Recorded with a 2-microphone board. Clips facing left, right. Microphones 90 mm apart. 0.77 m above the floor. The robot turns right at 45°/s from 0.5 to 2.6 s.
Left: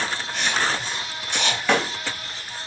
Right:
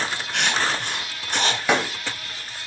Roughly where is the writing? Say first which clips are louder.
Right 1 dB; right.